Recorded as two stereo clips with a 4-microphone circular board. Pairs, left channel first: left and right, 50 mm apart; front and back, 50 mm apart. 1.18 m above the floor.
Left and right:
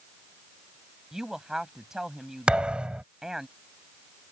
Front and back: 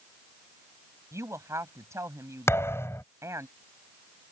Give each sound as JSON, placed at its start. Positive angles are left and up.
{"t": 1.1, "sound": "a woman speaking", "azimuth_deg": -170}
{"t": 2.5, "sound": "a thud", "azimuth_deg": -20}